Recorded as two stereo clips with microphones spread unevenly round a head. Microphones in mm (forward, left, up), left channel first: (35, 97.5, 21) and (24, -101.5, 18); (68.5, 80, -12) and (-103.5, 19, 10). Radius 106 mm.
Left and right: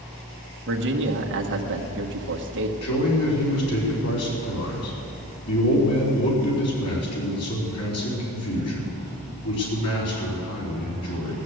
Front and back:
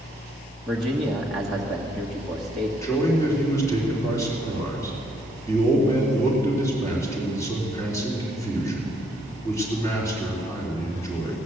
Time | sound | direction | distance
0.7 | a man speaking | 70° right | 1.5 m
2.8 | a man speaking | 95° left | 3.5 m